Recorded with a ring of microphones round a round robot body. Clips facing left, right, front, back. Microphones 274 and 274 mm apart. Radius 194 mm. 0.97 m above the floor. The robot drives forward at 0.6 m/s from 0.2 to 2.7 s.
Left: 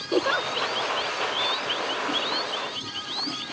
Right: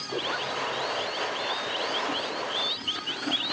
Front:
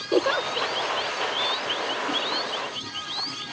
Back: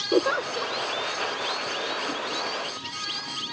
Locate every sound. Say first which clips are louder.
0.1 s a giggle: left 8 dB, even; 105° left; by 0.8 s 115° left